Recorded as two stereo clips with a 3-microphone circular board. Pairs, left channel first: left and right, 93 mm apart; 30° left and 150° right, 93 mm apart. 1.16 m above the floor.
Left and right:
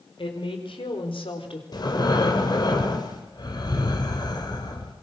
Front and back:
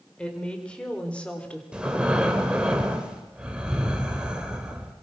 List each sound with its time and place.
0.2 s a woman speaking: 110° left, 5 m; by 1.6 s 105° left, 3.5 m
1.7 s breathing: 130° left, 3 m